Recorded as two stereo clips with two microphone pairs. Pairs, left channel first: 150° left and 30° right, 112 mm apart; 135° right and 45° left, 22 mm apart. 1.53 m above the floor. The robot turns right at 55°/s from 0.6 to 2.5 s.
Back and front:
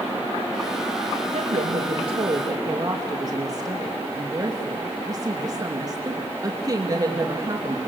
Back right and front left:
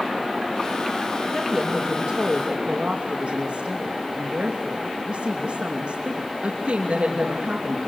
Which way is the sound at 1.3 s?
40° right.